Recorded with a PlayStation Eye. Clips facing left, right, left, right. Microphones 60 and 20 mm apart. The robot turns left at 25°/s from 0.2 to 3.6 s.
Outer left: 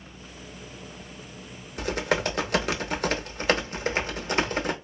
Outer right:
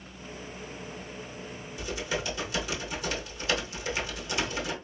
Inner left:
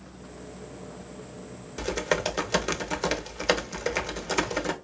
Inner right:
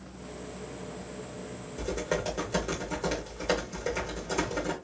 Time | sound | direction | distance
1.8 | typing on a keyboard | 105° left | 0.7 m